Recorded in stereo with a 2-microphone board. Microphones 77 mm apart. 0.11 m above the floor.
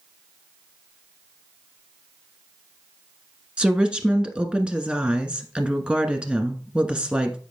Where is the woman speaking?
15° right (ahead or behind), 1.1 m.